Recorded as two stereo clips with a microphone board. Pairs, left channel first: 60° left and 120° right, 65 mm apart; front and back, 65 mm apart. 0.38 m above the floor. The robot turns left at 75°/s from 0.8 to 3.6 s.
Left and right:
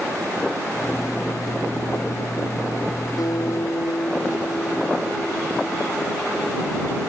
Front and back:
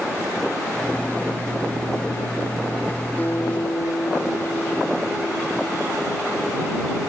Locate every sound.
3.2 s a guitar: 65° left; by 6.1 s 30° left